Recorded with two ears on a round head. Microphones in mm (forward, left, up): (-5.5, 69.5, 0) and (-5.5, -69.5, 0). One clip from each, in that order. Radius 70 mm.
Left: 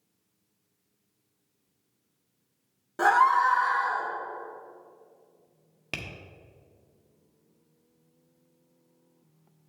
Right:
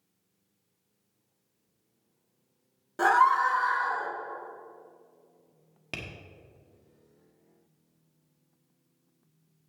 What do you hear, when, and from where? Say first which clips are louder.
3.0 s a scream: left 1 dB; 5° right (ahead or behind), 1.0 m; by 4.1 s centre (ahead or behind), 1.8 m
5.9 s tapping: left 2 dB; 10° left (ahead or behind), 1.2 m